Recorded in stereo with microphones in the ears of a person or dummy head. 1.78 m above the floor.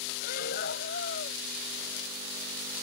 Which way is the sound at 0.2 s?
60° left (ahead or behind).